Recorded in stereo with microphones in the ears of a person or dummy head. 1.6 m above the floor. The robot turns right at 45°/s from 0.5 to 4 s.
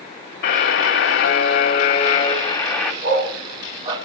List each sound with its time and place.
0.4 s a buzzer: 70° left, 1.9 m; by 2.9 s straight behind, 1.9 m
3.0 s a dog barking: 60° right (ahead or behind), 2.5 m; by 4.0 s 30° right (ahead or behind), 2.5 m